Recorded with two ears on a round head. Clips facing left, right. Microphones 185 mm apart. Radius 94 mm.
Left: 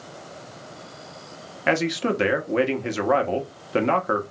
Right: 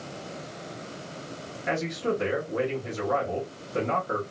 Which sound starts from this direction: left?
A man speaking, at 1.7 s.